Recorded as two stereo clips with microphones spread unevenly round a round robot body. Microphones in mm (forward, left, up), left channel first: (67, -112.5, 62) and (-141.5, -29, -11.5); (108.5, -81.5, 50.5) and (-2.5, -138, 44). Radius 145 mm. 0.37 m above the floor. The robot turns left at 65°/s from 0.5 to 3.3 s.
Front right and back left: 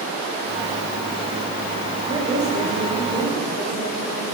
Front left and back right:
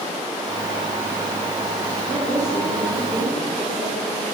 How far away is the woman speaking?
About 1.2 m.